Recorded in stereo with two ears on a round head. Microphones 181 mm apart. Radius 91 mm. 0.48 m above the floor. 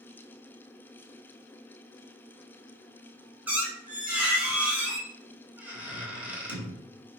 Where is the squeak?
10° right (ahead or behind), 0.7 m.